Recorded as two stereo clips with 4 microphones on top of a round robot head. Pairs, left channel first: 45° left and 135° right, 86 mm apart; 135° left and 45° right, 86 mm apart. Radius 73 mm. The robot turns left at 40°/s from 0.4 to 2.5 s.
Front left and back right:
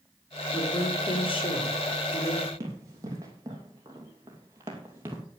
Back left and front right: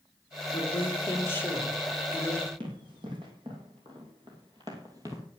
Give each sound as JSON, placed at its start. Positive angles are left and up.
{"t": 0.5, "sound": "a woman speaking", "azimuth_deg": 100, "distance_m": 4.0}
{"t": 2.6, "sound": "running footsteps", "azimuth_deg": -80, "distance_m": 3.0}